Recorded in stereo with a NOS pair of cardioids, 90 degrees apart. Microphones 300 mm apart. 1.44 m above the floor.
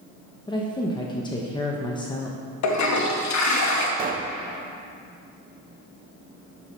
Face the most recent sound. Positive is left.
turn(degrees=-30)